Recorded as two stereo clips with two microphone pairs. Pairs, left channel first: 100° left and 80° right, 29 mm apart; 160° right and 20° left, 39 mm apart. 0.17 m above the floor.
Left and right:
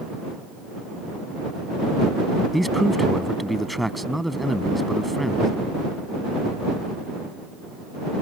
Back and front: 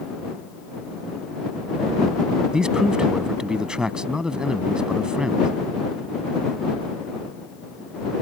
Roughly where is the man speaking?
Ahead.